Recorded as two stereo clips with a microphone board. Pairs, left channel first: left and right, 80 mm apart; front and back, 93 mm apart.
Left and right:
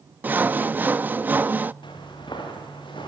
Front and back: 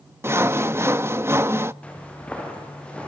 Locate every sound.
0.2 s sawing: 140° right, 0.5 m
1.8 s footsteps: 75° left, 7.5 m; by 3.1 s 80° left, 9 m